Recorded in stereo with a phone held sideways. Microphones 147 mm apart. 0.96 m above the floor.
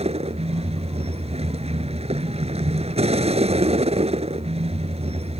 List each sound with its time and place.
0.0 s a vehicle: 45° right (ahead or behind)